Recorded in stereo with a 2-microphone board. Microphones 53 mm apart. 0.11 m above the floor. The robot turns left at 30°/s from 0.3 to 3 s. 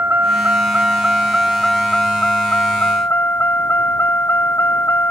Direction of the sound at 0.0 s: 145° right.